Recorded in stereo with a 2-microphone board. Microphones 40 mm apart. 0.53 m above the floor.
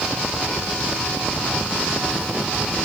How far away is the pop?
No pop in this recording.